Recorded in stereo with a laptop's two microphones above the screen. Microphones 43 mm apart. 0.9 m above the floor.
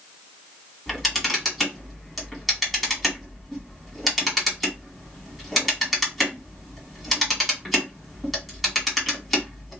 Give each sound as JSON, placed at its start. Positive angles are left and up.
{"t": 0.9, "sound": "a camera shutter", "side_deg": 0, "distance_m": 1.8}